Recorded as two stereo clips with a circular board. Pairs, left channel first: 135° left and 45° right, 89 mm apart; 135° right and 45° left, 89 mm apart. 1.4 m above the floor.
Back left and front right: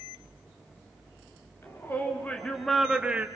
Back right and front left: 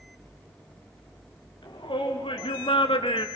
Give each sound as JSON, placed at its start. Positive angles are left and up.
{"t": 1.6, "sound": "a shout", "azimuth_deg": -160, "distance_m": 3.5}